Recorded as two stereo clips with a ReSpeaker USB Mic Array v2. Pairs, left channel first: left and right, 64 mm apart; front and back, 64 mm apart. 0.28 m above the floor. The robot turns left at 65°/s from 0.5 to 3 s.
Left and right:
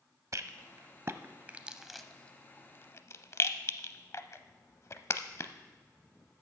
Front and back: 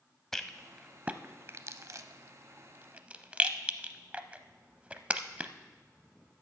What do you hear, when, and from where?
0.3 s a rattle: 85° right, 0.6 m; by 5.5 s 115° left, 0.6 m